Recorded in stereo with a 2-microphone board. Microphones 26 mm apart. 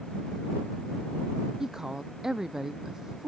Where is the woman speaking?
20° right (ahead or behind).